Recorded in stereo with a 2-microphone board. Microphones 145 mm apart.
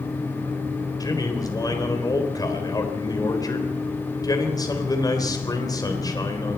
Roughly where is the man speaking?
Left.